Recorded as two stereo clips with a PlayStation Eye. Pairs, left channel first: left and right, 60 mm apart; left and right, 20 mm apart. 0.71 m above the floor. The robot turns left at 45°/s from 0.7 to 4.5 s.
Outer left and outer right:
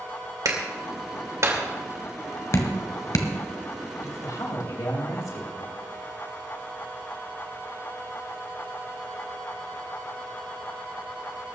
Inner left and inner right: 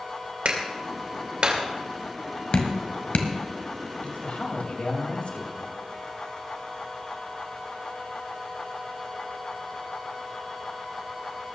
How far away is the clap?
About 2.5 m.